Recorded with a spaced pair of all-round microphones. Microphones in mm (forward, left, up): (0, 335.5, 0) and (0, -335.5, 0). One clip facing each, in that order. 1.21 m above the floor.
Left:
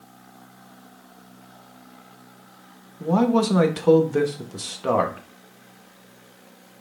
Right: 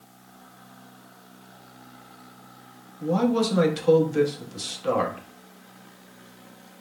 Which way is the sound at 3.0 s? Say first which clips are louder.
Left 3 dB; 70° left (ahead or behind).